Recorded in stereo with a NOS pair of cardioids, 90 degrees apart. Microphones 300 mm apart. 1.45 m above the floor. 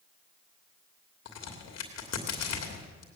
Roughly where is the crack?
Ahead left.